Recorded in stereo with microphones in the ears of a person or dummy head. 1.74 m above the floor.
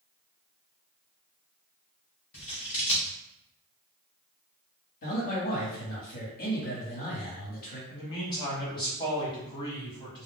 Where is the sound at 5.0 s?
45° left (ahead or behind), 1.3 m.